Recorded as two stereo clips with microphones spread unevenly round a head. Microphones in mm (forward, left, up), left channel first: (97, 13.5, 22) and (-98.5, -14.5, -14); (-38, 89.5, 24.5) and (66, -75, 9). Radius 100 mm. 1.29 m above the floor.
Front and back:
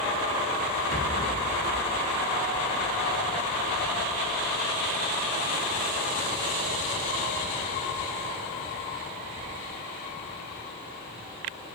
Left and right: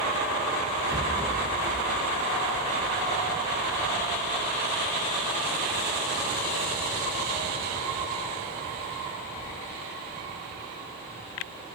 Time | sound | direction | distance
0.9 | a rattle | 15° right | 1.7 m